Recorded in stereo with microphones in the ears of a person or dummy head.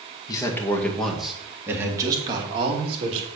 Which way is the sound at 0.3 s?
20° left (ahead or behind).